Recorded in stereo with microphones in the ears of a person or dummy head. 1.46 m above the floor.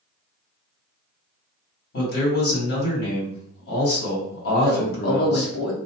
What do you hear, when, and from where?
1.9 s a man speaking: 70° left (ahead or behind), 1.7 m
4.6 s a man speaking: 70° left (ahead or behind), 0.9 m